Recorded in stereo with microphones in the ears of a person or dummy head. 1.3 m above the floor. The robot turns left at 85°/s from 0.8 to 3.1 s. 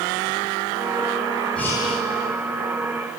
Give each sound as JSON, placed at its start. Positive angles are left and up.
{"t": 1.6, "sound": "breathing", "azimuth_deg": 175, "distance_m": 1.8}